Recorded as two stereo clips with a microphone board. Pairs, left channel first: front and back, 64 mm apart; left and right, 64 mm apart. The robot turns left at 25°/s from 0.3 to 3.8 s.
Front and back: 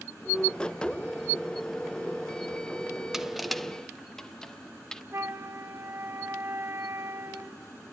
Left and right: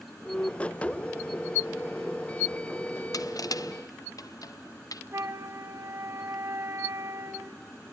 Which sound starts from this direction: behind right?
A flute, at 5.1 s.